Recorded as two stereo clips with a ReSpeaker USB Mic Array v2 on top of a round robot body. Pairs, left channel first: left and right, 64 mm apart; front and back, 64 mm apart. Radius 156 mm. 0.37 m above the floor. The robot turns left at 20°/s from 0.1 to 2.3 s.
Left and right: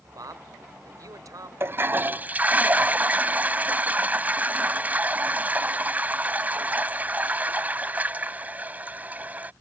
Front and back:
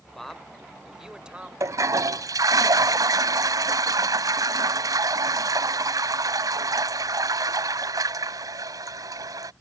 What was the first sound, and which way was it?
A man speaking, 80° right.